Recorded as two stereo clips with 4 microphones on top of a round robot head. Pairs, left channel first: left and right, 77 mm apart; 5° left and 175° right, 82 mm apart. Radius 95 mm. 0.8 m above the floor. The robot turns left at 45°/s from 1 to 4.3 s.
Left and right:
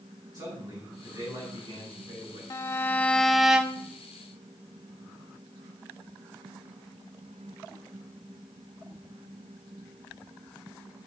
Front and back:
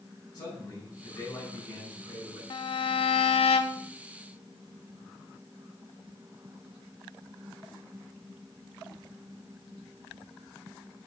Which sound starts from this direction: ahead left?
A violin, at 2.5 s.